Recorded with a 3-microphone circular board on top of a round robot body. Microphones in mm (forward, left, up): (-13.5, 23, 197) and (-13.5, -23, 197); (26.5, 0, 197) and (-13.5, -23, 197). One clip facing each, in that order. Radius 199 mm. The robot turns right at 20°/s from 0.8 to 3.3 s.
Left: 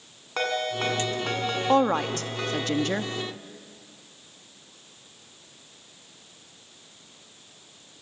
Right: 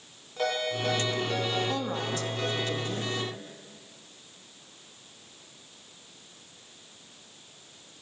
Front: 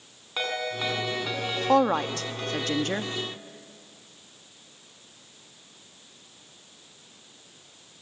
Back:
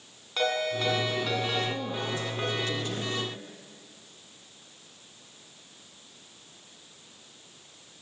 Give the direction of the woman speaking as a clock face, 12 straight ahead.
11 o'clock.